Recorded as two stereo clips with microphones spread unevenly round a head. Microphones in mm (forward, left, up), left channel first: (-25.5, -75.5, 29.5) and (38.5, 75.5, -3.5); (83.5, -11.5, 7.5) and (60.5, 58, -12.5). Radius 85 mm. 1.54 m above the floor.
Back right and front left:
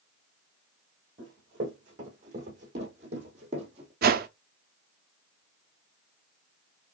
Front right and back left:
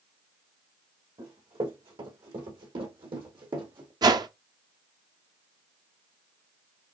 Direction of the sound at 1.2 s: 115° left.